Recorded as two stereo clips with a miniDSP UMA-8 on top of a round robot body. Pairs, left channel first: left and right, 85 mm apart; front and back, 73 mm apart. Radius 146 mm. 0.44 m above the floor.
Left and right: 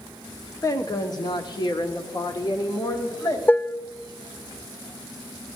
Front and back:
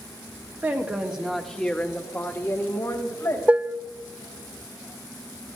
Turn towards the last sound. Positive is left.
turn(degrees=135)